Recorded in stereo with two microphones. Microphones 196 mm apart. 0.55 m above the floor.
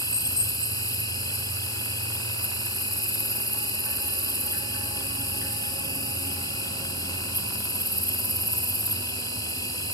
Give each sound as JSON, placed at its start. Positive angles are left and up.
{"t": 0.0, "sound": "an insect", "side_deg": 20, "distance_m": 0.7}